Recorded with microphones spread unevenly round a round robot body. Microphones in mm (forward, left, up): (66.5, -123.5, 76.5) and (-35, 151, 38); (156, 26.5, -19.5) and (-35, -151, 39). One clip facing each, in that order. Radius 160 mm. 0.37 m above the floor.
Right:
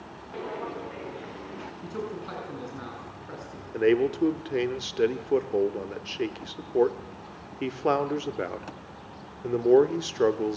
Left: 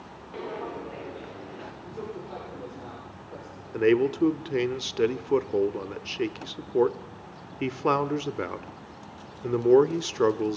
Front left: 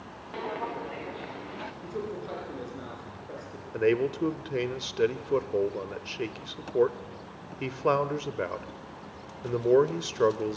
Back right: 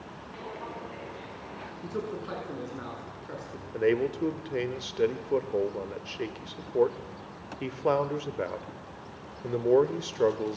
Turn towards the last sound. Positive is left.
turn(degrees=75)